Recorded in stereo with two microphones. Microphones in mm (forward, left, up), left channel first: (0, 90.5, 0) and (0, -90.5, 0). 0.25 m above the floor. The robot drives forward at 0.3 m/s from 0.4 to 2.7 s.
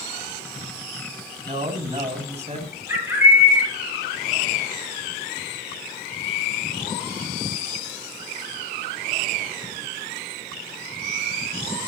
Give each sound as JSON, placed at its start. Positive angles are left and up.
{"t": 1.4, "sound": "a man speaking", "side_deg": -35, "distance_m": 2.0}
{"t": 2.9, "sound": "a bird", "side_deg": -15, "distance_m": 2.5}